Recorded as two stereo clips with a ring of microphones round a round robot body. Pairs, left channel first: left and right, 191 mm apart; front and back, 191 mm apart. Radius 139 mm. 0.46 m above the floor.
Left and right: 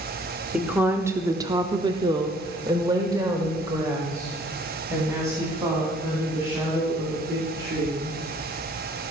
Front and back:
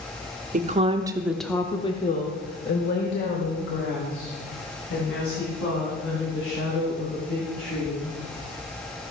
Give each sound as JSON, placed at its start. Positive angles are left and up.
{"t": 0.5, "sound": "a woman speaking", "azimuth_deg": -170, "distance_m": 0.9}